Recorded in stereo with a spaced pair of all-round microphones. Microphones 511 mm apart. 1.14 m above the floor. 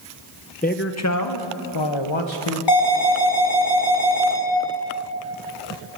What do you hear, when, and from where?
0.6 s a man speaking: 15° left (ahead or behind), 0.9 m; by 2.6 s 70° left (ahead or behind), 1.6 m
2.7 s an alarm: 65° left (ahead or behind), 5 m